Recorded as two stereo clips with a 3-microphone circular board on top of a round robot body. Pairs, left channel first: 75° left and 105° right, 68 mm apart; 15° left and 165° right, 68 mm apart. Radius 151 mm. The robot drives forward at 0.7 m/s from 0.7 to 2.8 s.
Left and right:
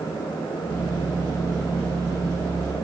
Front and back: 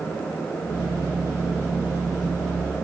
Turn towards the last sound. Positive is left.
No sound to turn to.